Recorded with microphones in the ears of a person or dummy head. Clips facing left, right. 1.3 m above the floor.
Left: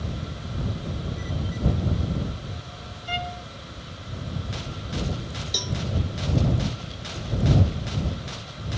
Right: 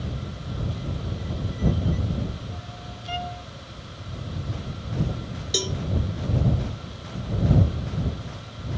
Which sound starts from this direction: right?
A cowbell, at 5.5 s.